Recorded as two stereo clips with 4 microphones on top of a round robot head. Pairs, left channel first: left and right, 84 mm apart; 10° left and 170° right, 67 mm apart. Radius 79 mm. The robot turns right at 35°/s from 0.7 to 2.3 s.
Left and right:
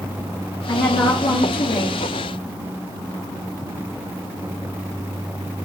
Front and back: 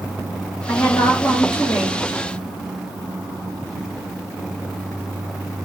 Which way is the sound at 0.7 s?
60° left.